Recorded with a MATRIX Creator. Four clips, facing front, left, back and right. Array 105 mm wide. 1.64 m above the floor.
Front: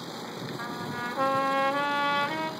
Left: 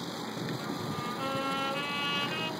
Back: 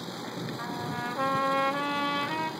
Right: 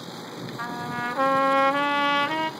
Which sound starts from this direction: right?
A trumpet, at 0.6 s.